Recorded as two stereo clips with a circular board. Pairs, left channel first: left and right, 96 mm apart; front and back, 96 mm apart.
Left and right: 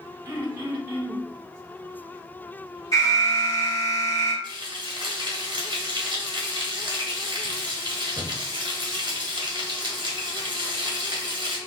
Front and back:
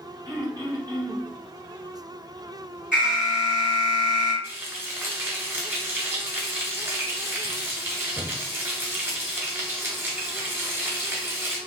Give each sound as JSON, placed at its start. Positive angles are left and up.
{"t": 0.2, "sound": "throat clearing", "azimuth_deg": -150, "distance_m": 1.8}
{"t": 2.9, "sound": "an alarm", "azimuth_deg": 105, "distance_m": 1.9}
{"t": 4.4, "sound": "frying", "azimuth_deg": -115, "distance_m": 1.6}